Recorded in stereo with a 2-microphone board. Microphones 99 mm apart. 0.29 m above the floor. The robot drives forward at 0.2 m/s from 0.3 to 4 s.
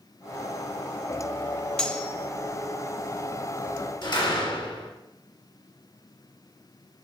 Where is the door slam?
55° left (ahead or behind), 1.9 m.